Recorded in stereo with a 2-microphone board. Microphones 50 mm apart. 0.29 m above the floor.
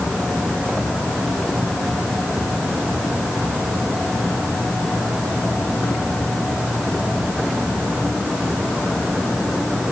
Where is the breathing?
I don't hear breathing.